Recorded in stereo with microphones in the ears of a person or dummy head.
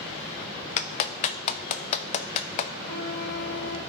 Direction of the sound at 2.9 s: 65° left (ahead or behind).